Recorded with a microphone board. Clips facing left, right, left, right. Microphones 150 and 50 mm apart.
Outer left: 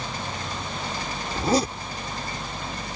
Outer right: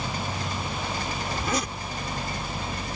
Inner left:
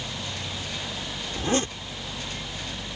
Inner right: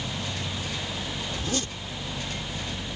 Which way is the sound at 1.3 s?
35° left (ahead or behind).